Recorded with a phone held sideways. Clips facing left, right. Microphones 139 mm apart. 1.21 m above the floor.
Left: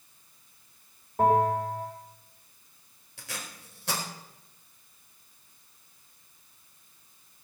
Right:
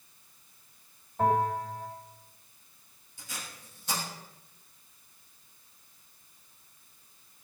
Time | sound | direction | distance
1.2 | a bell | 65° left (ahead or behind) | 4 m
3.2 | tape being pulled | 80° left | 4.5 m